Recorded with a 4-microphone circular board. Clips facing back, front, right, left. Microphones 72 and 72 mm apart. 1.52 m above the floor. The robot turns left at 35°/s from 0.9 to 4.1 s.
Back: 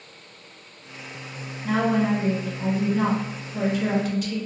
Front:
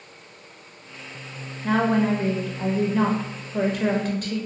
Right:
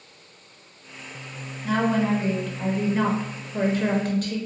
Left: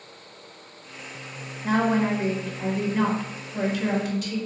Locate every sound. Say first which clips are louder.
1.6 s a woman speaking: front 1 dB, even; 40° left, 0.7 m; by 4.4 s 45° right, 0.7 m